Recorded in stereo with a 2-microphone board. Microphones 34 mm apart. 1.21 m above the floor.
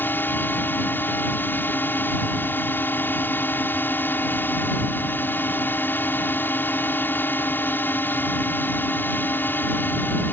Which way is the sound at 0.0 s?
65° left (ahead or behind).